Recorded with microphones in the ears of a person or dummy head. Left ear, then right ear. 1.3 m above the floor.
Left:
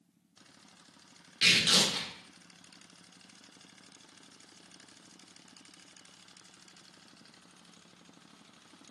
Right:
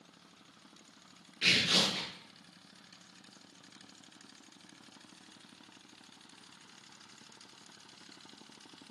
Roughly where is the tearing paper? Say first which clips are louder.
Left 3 dB; left.